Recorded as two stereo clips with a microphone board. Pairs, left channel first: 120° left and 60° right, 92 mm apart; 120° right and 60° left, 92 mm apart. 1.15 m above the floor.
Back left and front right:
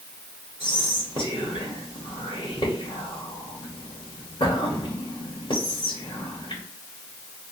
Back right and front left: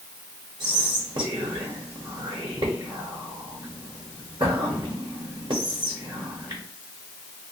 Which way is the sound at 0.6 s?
100° left.